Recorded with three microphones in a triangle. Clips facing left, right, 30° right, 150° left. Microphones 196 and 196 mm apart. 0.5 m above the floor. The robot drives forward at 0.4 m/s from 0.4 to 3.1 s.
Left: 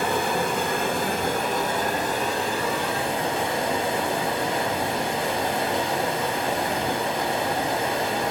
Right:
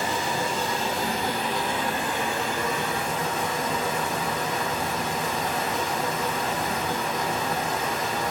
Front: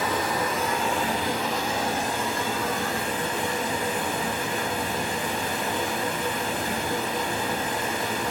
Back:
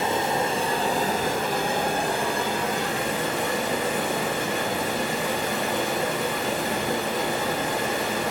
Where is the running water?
90° left, 0.8 m; by 8.3 s 145° left, 1.4 m.